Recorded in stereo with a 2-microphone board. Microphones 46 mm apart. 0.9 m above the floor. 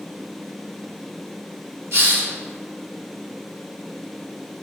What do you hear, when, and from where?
1.9 s a hiss: 55° right (ahead or behind), 2.5 m